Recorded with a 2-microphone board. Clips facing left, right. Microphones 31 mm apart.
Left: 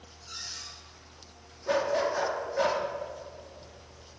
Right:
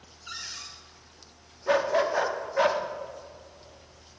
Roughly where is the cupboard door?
Right.